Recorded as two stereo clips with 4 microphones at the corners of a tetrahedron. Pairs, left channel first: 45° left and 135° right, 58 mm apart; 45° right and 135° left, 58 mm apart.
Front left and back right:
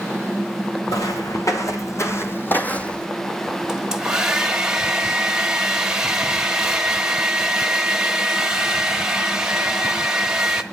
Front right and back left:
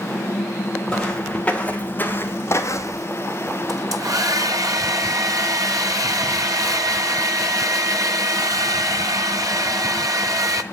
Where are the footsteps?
35° left, 2.5 m; by 3.1 s 35° right, 1.3 m.